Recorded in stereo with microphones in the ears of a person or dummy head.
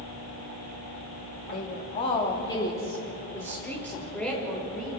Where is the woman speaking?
50° left (ahead or behind), 2.5 m; by 5.0 s 5° left (ahead or behind), 6.5 m.